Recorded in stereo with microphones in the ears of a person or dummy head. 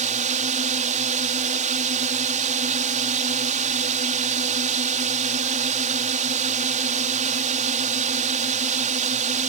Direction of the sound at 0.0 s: 45° right (ahead or behind).